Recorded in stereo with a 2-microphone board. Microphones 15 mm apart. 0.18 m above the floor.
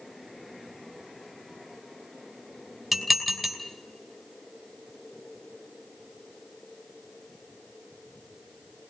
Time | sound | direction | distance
2.9 | dishes clattering | 5° right (ahead or behind) | 3 m